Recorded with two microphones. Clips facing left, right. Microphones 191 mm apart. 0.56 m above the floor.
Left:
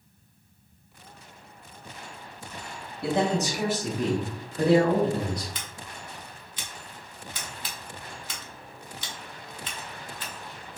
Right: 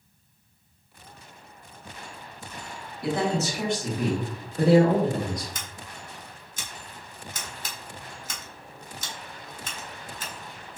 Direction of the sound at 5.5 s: 45° right (ahead or behind).